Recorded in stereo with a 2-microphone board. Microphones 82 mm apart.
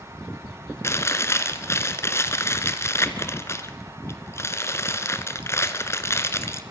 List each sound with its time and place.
0.8 s chewing: 35° left (ahead or behind), 1.3 m